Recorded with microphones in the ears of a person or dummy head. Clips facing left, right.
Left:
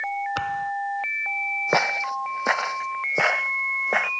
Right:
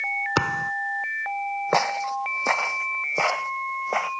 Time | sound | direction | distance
0.4 | a thud | 60° right (ahead or behind) | ?
1.7 | footsteps | 10° left (ahead or behind) | ?